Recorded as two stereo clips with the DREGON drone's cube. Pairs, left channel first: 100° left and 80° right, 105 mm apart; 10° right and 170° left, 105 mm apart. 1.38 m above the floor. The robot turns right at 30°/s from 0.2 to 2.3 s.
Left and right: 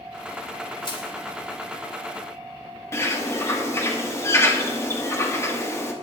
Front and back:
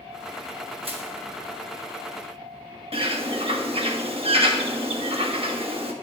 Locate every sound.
0.8 s crushing: 145° left, 1.7 m; by 1.1 s 155° left, 1.7 m
2.9 s a bird: 165° left, 1.2 m